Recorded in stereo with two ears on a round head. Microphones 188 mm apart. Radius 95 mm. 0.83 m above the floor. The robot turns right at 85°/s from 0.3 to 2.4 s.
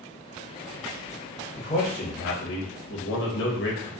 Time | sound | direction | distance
1.6 | a man speaking | 25° left | 0.6 m